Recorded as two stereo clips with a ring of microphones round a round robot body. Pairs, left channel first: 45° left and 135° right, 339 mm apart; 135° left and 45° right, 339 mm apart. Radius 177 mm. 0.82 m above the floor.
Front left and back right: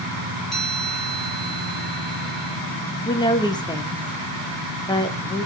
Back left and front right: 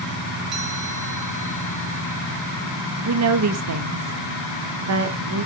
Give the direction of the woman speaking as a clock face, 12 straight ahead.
1 o'clock.